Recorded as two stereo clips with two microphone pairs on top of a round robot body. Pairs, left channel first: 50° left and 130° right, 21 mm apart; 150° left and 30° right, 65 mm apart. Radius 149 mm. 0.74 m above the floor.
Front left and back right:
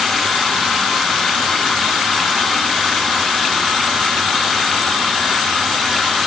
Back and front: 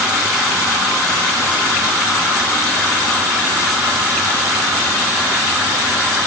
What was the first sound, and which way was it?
Only background noise.